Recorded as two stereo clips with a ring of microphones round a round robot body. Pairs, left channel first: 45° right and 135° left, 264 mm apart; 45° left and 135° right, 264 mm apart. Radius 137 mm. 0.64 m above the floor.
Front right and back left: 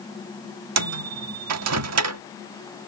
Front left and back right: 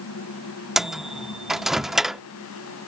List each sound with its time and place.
0.8 s a microwave: 135° left